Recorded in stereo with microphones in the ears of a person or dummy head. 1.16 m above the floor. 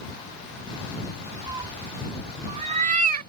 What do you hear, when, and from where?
1.5 s a cat meowing: 25° right (ahead or behind); by 3.3 s 50° right (ahead or behind)